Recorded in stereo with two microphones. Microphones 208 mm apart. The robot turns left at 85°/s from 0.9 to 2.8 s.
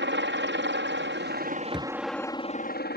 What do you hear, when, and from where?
0.0 s a helicopter: 80° right; by 3.0 s 120° left
1.7 s a thud: 5° right (ahead or behind); by 1.9 s 10° left (ahead or behind)